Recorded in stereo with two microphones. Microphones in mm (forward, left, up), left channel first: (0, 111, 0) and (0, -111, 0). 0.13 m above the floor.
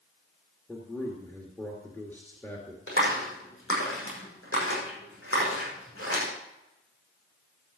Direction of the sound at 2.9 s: 70° left (ahead or behind).